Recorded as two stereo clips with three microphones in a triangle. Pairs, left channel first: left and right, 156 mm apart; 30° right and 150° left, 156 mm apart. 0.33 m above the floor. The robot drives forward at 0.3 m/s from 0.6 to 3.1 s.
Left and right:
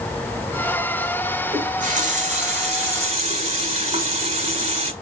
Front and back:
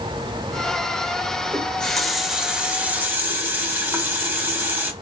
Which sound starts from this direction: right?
A running tap, at 1.5 s.